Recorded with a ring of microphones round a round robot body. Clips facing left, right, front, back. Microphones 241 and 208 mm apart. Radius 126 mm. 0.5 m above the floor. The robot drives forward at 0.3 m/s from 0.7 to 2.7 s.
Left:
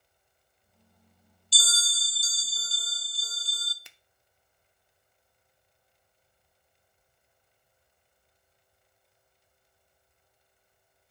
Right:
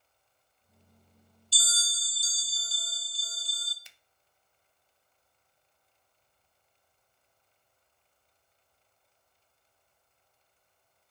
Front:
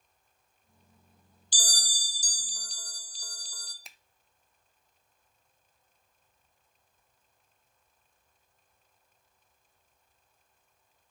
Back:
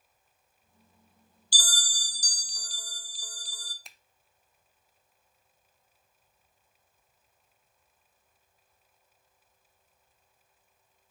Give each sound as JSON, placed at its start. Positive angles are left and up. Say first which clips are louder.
{"t": 1.5, "sound": "a bell", "louder": "left 4 dB, front 1 dB", "azimuth_deg": 70, "distance_m": 1.0}
{"t": 3.9, "sound": "a finger snap", "louder": "left 5 dB, even", "azimuth_deg": 90, "distance_m": 0.9}